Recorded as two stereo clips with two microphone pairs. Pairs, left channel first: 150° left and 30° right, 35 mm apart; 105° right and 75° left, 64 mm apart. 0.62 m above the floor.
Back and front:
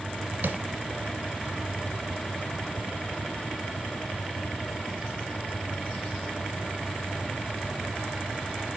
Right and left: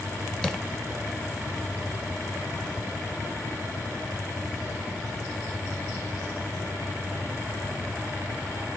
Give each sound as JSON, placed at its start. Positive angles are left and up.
{"t": 0.4, "sound": "tapping", "azimuth_deg": -30, "distance_m": 1.1}